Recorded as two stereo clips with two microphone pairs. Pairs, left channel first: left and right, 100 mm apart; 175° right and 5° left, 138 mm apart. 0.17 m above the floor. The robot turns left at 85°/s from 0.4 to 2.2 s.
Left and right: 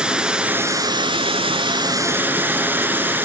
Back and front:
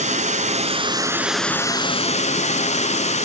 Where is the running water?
5° right, 0.8 m; by 3.2 s 160° right, 0.8 m.